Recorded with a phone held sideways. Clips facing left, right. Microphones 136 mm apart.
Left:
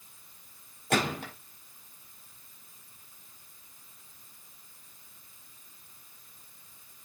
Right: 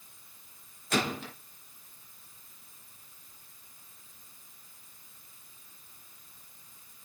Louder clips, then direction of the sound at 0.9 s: Left 2 dB; 55° left (ahead or behind).